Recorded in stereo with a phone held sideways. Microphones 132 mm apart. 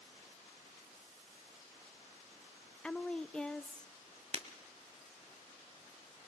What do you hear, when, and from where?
2.8 s a woman speaking: 5° left (ahead or behind), 0.7 m
4.3 s breaking glass: 50° right (ahead or behind), 1.4 m